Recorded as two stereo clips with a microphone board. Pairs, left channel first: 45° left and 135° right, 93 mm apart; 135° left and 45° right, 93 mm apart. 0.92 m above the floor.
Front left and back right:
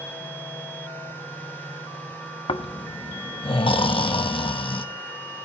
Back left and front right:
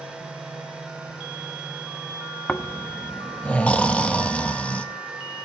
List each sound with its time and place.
2.5 s snoring: 60° left, 0.9 m